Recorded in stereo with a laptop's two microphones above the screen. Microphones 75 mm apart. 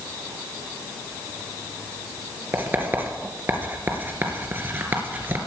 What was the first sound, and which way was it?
Writing, 30° right (ahead or behind).